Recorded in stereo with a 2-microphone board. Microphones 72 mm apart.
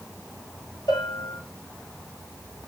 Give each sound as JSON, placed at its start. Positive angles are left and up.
{"t": 0.9, "sound": "a bell", "side_deg": 80, "distance_m": 9.0}